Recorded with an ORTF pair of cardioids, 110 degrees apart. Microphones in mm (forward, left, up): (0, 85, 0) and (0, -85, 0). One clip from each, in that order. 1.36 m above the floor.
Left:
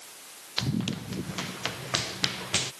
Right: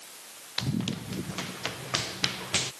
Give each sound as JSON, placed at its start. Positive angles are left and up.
{"t": 0.6, "sound": "running footsteps", "azimuth_deg": 15}